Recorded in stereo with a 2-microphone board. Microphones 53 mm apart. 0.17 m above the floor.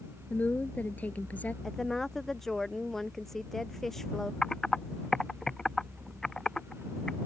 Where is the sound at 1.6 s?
5° left (ahead or behind).